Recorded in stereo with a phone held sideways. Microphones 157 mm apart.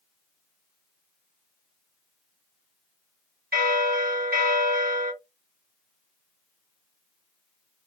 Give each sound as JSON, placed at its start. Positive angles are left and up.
{"t": 3.5, "sound": "a bell", "side_deg": -75, "distance_m": 2.0}